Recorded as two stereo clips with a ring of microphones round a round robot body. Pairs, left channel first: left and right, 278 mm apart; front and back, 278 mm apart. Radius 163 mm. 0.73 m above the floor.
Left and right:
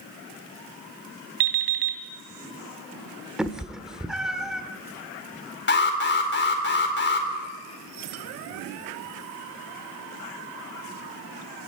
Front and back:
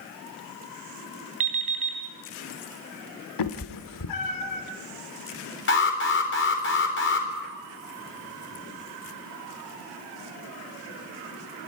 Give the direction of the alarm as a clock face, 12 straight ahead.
11 o'clock.